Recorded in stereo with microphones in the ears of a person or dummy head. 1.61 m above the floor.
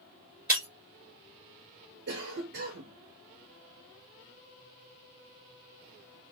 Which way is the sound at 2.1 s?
55° right (ahead or behind).